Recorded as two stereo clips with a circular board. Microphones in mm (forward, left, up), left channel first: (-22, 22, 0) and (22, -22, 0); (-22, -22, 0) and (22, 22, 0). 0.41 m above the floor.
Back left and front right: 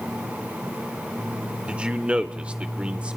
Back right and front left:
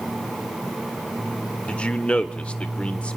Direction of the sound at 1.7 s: 90° right.